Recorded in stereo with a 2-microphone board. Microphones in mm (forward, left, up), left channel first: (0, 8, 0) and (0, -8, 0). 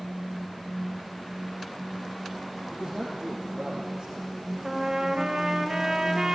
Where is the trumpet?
40° right (ahead or behind), 3 m.